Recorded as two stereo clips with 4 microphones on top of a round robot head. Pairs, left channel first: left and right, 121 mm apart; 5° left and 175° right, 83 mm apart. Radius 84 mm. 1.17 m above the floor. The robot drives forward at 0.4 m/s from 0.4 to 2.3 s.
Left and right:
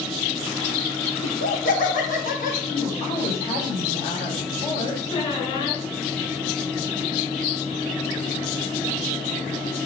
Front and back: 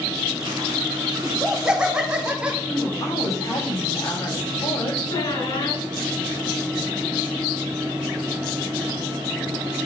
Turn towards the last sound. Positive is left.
turn(degrees=40)